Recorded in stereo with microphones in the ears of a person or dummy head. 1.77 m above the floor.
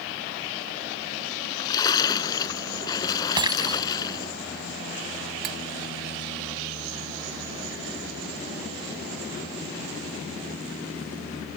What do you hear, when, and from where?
1.3 s a splash: 25° left (ahead or behind)
3.4 s breaking glass: 25° right (ahead or behind)
5.4 s cutlery clinking: 50° right (ahead or behind)